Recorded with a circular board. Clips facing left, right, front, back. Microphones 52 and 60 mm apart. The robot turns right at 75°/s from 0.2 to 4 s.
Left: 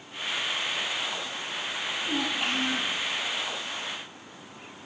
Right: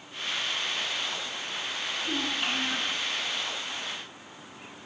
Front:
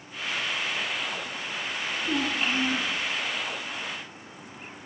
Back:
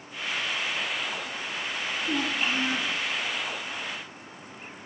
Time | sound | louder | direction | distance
2.0 | a child speaking | left 2 dB, front 1 dB | 65° left | 3 m